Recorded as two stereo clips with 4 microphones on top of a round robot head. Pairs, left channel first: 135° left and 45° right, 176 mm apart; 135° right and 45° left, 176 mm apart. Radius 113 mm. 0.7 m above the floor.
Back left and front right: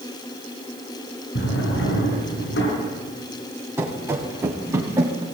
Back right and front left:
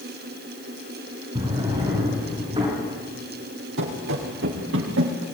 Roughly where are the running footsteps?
Ahead left.